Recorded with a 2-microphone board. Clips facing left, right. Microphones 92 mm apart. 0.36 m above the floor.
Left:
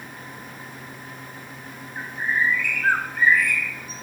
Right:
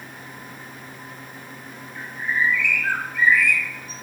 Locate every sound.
1.9 s a bird: 45° left (ahead or behind), 1.9 m